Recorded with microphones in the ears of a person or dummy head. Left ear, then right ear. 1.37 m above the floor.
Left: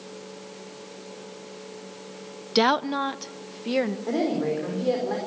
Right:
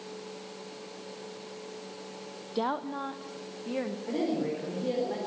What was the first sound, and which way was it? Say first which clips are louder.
A woman speaking: left 10 dB; 60° left (ahead or behind).